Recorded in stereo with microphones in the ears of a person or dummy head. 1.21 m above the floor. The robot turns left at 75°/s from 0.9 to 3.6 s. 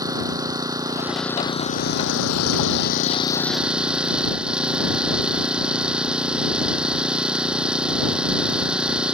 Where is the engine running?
160° right; by 9.2 s 5° right.